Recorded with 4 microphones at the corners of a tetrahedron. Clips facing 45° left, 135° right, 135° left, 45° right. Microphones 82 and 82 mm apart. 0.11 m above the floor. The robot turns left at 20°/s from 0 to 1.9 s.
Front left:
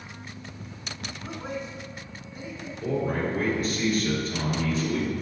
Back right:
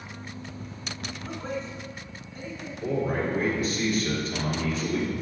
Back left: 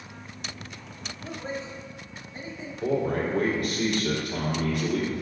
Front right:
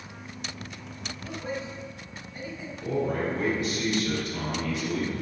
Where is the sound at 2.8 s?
140° left, 3 m.